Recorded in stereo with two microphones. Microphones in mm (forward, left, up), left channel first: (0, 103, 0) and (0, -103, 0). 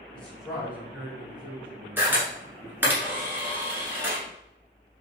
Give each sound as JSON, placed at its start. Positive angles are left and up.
{"t": 0.1, "sound": "a man speaking", "side_deg": 5, "distance_m": 1.2}
{"t": 2.0, "sound": "a camera shutter", "side_deg": -10, "distance_m": 1.1}